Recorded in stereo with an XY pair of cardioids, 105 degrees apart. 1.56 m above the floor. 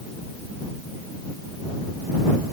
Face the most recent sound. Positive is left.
No sound to turn to.